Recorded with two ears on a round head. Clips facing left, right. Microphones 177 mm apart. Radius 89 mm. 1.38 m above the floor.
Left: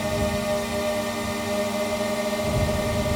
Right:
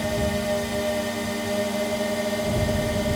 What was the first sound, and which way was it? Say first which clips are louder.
A drone: even; 5° right (ahead or behind).